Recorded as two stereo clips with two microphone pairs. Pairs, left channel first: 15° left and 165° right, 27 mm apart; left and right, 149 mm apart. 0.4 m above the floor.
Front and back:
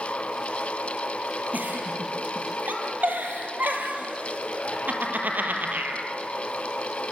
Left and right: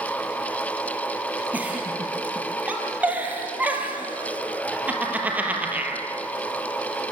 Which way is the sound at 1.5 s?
165° right.